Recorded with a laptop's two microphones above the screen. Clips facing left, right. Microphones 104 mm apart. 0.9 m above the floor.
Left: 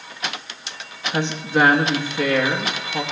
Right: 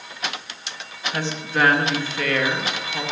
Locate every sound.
1.1 s a woman speaking: 20° left (ahead or behind), 0.8 m